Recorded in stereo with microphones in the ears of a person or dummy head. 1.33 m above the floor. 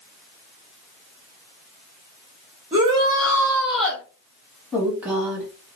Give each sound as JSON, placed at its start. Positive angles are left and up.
{"t": 2.7, "sound": "a shout", "side_deg": -30, "distance_m": 1.2}
{"t": 4.7, "sound": "a woman speaking", "side_deg": -5, "distance_m": 1.4}